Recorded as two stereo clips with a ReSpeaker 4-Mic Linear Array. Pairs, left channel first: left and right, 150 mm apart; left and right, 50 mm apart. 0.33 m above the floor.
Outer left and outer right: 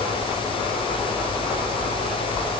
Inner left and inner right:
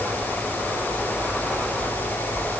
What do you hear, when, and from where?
Only background noise.